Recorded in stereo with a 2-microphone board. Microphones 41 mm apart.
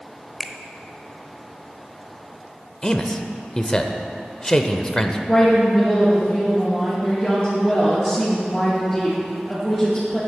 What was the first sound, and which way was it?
A finger snap, centre (ahead or behind).